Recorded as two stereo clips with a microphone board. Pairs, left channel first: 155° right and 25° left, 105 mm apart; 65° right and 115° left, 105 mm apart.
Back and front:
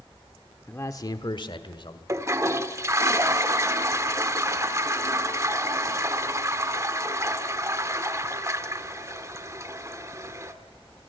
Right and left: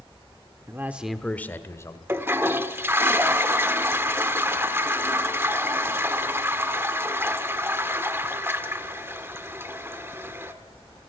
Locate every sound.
0.7 s a man speaking: 145° left, 1.0 m; by 2.0 s 125° right, 1.9 m
2.1 s a toilet flushing: 60° left, 1.4 m